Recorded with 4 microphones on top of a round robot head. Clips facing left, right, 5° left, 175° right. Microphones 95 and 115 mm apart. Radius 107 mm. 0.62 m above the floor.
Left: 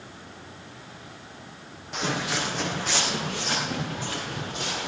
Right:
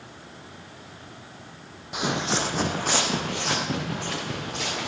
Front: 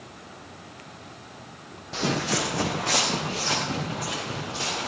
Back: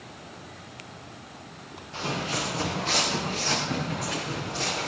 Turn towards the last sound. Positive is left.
turn(degrees=-70)